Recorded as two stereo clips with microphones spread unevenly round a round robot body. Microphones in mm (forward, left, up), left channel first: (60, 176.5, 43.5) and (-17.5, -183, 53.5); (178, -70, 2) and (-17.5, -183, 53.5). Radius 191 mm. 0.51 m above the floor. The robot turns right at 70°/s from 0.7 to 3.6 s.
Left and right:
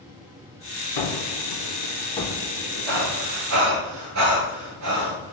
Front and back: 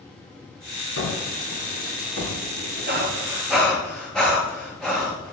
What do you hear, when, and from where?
1.0 s a gunshot: 70° left, 4.5 m; by 3.3 s 125° right, 4.5 m
2.9 s breathing: 110° right, 7 m; by 5.3 s 55° right, 7 m